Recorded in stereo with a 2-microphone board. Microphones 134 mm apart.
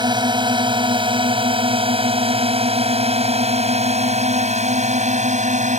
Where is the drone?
30° right (ahead or behind); by 5.8 s 55° right (ahead or behind).